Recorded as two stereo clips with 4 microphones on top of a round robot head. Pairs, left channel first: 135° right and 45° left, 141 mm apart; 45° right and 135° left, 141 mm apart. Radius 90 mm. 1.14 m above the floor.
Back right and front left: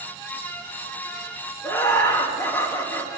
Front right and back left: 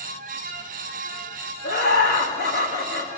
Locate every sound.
1.6 s laughter: 60° right, 1.6 m